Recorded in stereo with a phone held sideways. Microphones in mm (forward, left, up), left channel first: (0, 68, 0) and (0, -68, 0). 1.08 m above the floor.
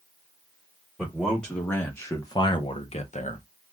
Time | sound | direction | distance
1.0 | a man speaking | centre (ahead or behind) | 1.2 m